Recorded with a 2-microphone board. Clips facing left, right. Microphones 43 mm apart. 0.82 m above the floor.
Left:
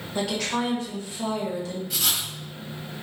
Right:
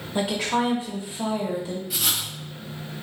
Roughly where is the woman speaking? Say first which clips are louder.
Right 3 dB; centre.